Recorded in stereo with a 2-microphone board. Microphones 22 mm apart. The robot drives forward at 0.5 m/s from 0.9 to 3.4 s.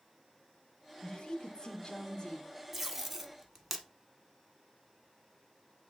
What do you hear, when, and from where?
1.0 s a woman speaking: 30° left (ahead or behind), 1.3 m; by 2.5 s 25° left (ahead or behind), 1.7 m
2.7 s tape being pulled: 15° right (ahead or behind), 0.7 m; by 3.9 s 10° right (ahead or behind), 1.0 m